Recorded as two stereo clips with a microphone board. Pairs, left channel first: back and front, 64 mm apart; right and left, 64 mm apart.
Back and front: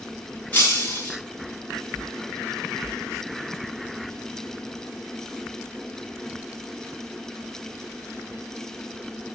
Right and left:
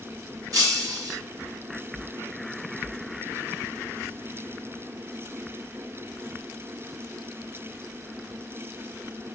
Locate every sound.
0.5 s breaking glass: 115° left, 6 m